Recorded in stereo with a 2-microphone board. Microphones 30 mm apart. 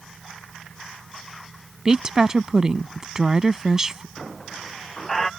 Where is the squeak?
15° left (ahead or behind).